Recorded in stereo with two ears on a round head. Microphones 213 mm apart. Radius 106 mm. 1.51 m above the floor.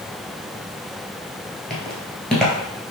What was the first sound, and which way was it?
Footsteps, centre (ahead or behind).